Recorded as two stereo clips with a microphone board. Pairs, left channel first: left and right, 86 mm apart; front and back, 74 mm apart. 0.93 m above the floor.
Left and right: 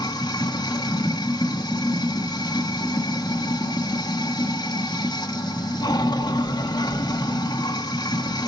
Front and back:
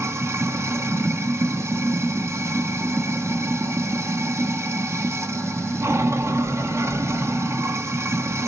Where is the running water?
125° left, 1.0 m.